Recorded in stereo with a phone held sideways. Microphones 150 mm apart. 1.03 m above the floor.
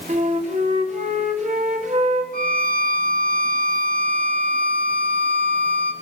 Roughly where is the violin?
Left.